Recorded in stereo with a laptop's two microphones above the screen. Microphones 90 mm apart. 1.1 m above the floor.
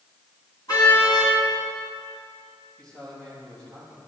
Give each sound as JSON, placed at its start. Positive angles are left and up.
{"t": 0.7, "sound": "a car horn", "side_deg": 45, "distance_m": 5.0}
{"t": 2.8, "sound": "a man speaking", "side_deg": 10, "distance_m": 6.0}